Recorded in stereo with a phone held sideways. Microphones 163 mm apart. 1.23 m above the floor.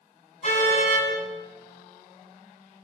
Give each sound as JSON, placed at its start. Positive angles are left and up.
{"t": 0.4, "sound": "a car horn", "side_deg": 45, "distance_m": 6.0}